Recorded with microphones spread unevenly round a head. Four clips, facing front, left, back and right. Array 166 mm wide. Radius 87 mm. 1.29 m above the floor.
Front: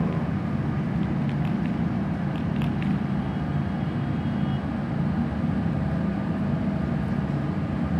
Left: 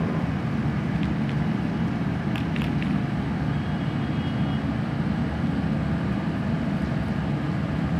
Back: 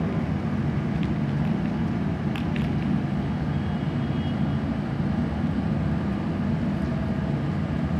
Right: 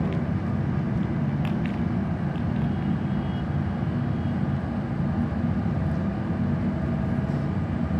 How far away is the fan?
About 0.7 m.